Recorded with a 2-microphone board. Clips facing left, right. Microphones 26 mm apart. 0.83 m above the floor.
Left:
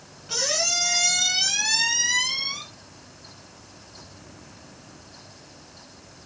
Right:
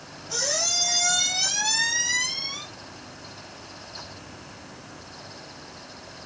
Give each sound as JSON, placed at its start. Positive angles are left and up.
{"t": 0.3, "sound": "a squeak", "side_deg": 60, "distance_m": 1.7}